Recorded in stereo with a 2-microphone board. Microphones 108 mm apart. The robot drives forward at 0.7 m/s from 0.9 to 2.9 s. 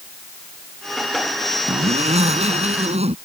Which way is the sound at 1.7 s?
80° right.